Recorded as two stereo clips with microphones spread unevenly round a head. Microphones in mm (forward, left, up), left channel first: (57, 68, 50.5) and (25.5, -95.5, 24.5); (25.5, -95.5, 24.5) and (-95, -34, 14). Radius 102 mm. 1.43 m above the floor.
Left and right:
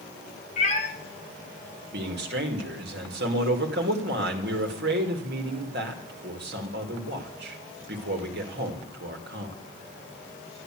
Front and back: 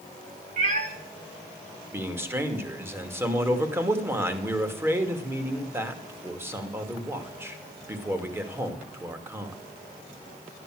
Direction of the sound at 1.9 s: 135° right.